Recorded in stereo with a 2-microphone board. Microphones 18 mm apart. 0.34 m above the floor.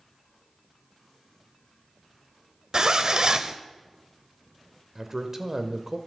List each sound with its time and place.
2.7 s a zipper: 45° right (ahead or behind), 0.6 m
5.0 s a man speaking: 20° right (ahead or behind), 0.8 m